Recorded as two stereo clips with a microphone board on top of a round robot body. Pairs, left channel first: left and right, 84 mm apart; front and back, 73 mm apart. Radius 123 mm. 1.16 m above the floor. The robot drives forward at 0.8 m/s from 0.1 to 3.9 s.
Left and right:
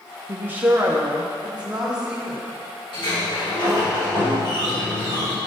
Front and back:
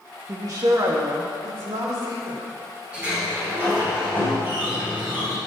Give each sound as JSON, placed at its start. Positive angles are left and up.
{"t": 0.3, "sound": "a woman speaking", "azimuth_deg": -145, "distance_m": 0.9}
{"t": 2.9, "sound": "a sliding door", "azimuth_deg": 110, "distance_m": 4.0}